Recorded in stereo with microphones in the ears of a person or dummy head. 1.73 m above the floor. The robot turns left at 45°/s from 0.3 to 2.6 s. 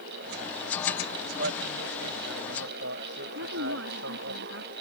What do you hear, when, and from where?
1.4 s a man speaking: 65° right; by 4.3 s 120° right
3.4 s a woman speaking: 70° right (ahead or behind)